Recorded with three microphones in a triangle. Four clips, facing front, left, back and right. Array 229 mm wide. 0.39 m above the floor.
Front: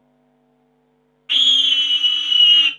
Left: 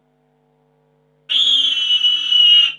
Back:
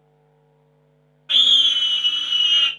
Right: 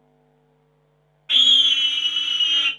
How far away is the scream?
About 1.6 m.